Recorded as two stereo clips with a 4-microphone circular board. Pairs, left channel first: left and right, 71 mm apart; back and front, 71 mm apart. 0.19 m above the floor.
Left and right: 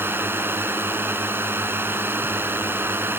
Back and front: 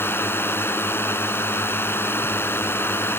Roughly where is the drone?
Behind right.